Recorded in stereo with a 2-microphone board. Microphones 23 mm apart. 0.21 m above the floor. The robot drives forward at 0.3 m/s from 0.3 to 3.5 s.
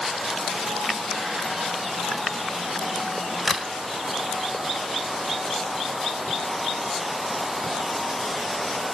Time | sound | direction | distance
3.5 | a crack | 5° left (ahead or behind) | 1.5 m